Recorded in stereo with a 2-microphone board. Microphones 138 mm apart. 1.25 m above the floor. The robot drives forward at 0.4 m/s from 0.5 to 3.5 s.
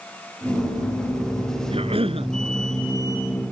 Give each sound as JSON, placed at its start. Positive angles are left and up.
{"t": 1.7, "sound": "a cough", "side_deg": -40}